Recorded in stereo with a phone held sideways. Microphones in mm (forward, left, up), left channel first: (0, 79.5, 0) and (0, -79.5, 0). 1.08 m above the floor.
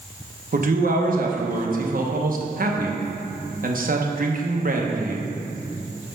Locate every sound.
0.5 s a man speaking: 60° right (ahead or behind), 0.9 m